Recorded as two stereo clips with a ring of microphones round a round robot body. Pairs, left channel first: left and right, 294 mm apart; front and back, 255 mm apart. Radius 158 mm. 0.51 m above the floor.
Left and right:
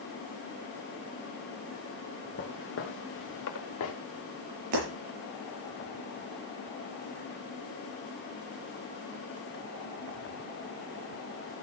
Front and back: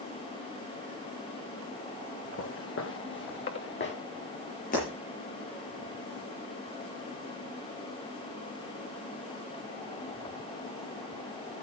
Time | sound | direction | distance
2.4 | footsteps | 35° left | 2.5 m
4.7 | breaking glass | 65° right | 7 m